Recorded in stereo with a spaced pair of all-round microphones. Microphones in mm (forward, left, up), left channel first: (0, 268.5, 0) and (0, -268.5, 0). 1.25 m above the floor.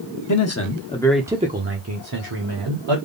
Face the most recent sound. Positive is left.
turn(degrees=-55)  # may be behind; listen again after turning